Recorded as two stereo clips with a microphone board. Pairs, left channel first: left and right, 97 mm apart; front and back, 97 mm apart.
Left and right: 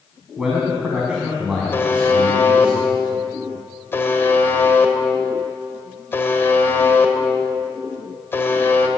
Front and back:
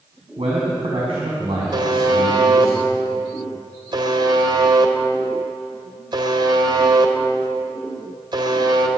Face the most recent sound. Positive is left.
turn(degrees=155)